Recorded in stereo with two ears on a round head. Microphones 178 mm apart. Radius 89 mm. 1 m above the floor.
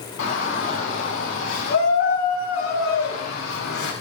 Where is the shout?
70° left (ahead or behind), 9.5 m; by 3.9 s 85° left, 10 m.